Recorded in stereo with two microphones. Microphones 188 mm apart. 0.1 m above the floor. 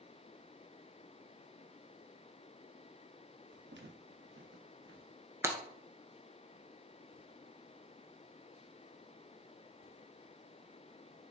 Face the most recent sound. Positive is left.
turn(degrees=-15)  # may be behind; listen again after turning